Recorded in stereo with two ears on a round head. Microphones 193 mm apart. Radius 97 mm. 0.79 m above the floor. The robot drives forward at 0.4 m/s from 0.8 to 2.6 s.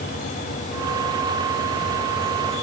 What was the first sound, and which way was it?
Only background noise.